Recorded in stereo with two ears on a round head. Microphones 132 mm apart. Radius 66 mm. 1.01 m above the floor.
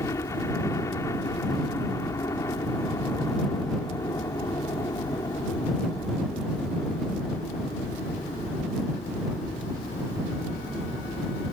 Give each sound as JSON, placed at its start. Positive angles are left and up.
{"t": 0.0, "sound": "a helicopter", "side_deg": 20}